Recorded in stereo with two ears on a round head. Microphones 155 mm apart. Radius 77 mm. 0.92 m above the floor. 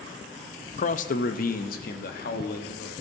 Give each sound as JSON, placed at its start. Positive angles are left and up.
{"t": 0.8, "sound": "a man speaking", "side_deg": 45, "distance_m": 0.5}